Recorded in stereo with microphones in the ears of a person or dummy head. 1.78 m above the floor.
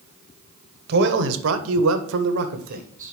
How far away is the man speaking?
About 1.1 m.